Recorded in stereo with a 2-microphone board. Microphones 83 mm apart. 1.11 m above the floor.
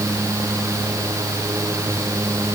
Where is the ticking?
No ticking in this recording.